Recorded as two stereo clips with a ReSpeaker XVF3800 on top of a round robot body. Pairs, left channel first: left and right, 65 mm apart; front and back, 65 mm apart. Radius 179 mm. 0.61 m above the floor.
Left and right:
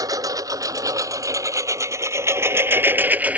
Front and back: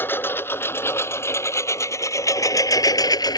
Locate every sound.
0.0 s a lawn mower: 60° right; by 3.4 s 20° right